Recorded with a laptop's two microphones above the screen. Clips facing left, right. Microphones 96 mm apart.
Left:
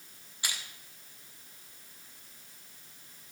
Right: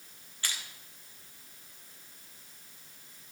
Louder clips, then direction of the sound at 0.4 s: Even; 15° left (ahead or behind).